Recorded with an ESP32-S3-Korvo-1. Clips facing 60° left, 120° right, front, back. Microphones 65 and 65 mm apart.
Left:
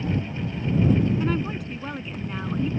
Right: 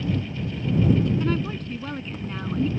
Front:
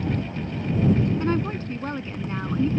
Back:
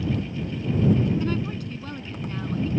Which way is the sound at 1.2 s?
15° right.